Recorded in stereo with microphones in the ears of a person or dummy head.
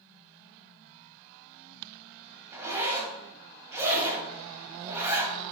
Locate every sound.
2.5 s a zipper: 15° right (ahead or behind), 2.5 m